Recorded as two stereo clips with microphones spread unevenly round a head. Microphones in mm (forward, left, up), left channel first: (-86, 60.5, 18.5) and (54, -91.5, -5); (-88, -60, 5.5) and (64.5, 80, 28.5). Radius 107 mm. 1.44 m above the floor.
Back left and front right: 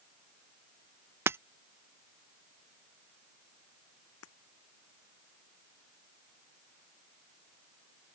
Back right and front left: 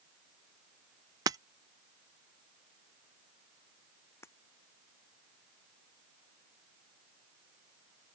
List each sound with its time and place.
1.3 s breaking glass: 30° left
4.2 s breaking glass: 145° left